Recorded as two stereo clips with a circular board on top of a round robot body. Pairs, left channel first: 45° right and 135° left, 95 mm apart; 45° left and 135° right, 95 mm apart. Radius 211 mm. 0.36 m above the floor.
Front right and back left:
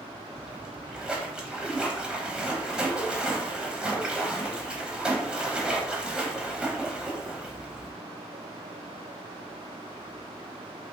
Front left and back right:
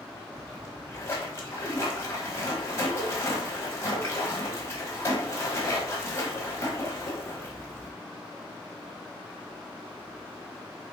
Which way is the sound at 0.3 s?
65° left.